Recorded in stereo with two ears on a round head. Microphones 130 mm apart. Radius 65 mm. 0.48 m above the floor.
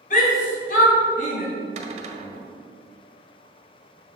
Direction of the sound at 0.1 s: 60° left (ahead or behind).